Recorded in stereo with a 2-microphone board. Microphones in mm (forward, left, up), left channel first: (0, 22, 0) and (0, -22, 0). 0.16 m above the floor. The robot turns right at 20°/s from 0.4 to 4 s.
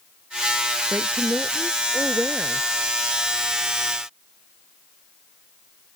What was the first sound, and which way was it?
A woman speaking, 45° right.